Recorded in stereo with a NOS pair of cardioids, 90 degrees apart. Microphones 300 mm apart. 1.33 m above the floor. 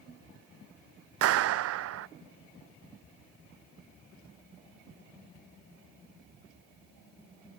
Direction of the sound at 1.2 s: 55° right.